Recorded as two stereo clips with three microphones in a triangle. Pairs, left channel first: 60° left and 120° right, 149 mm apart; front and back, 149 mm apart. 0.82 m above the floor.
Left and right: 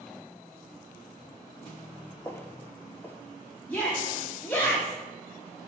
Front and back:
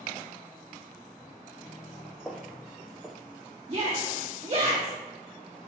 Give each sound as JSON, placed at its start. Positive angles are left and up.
{"t": 2.2, "sound": "footsteps", "azimuth_deg": 90, "distance_m": 0.8}
{"t": 3.7, "sound": "a shout", "azimuth_deg": 135, "distance_m": 1.4}